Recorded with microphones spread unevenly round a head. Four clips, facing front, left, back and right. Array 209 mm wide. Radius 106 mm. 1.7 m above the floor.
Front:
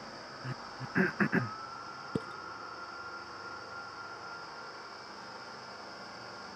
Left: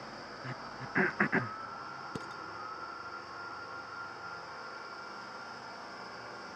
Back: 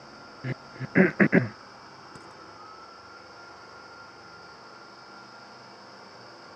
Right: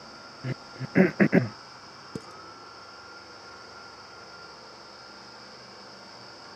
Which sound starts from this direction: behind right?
Throat clearing, at 0.4 s.